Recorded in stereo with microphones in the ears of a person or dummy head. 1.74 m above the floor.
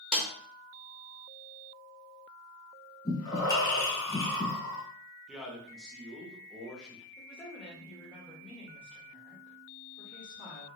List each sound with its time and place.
0.1 s a snare drum: 5° left (ahead or behind), 0.5 m
3.0 s breathing: 25° left (ahead or behind), 0.7 m
5.3 s a man speaking: 5° left (ahead or behind), 0.6 m
7.2 s a woman speaking: 10° left (ahead or behind), 1.0 m